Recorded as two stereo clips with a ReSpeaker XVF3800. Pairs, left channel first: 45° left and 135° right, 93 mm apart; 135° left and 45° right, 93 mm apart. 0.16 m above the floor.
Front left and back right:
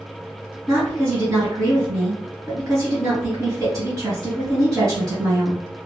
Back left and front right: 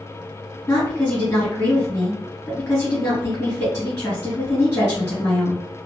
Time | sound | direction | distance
0.7 | a woman speaking | 160° right | 1.6 m